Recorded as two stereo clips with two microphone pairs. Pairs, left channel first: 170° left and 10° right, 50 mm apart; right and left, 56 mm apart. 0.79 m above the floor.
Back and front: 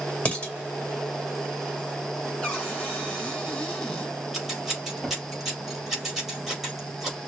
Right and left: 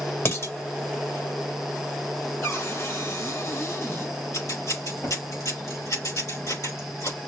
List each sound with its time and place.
0.2 s dishes clattering: 125° right, 2 m
2.4 s a cupboard door: 115° right, 1.8 m
4.3 s scissors: 100° right, 4 m